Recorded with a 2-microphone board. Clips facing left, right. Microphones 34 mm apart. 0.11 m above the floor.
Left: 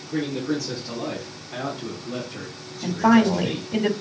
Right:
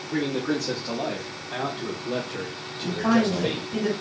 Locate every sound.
0.1 s a man speaking: 70° right (ahead or behind), 4.5 m; by 3.7 s 55° right (ahead or behind), 3.5 m
2.8 s a woman speaking: 45° left (ahead or behind), 1.9 m